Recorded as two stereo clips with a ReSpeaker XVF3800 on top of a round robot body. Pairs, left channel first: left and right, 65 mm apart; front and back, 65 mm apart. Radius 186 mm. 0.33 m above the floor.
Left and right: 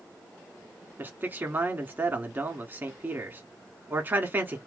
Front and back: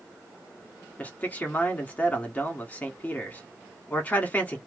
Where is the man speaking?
50° right, 1.4 m.